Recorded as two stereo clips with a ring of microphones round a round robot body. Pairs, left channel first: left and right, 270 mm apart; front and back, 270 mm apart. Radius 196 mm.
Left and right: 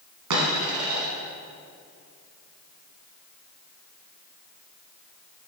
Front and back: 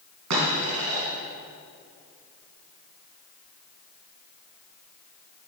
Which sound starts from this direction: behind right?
A dropped coin, at 0.3 s.